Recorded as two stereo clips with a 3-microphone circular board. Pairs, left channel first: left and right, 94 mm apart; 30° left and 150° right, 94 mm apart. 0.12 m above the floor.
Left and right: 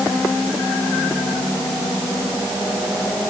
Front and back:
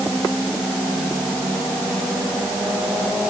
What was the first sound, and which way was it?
Only background noise.